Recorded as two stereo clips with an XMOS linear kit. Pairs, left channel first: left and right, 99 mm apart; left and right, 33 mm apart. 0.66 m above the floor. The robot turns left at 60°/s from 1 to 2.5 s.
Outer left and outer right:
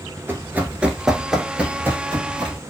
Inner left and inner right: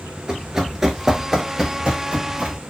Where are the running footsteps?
25° right (ahead or behind), 0.7 m; by 2.6 s 50° right (ahead or behind), 1.1 m.